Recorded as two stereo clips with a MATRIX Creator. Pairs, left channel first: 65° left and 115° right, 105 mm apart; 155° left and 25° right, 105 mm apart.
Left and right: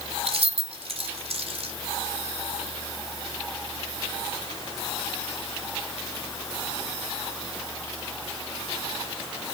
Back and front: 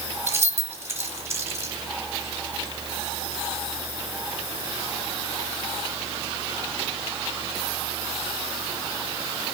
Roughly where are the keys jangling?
Right.